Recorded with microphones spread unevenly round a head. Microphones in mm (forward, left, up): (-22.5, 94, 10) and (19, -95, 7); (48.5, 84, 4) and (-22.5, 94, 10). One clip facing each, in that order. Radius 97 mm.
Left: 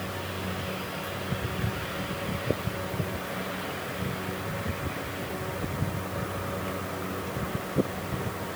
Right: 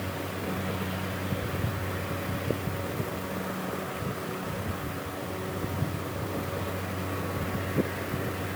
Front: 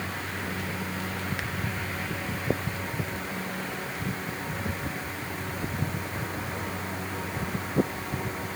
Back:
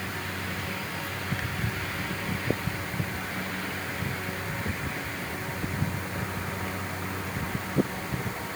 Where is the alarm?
No alarm in this recording.